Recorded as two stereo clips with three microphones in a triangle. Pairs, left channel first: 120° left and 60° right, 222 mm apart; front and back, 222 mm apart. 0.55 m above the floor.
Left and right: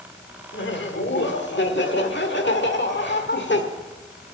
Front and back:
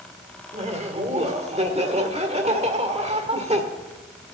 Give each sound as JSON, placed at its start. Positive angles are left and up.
{"t": 0.5, "sound": "laughter", "azimuth_deg": 130, "distance_m": 1.7}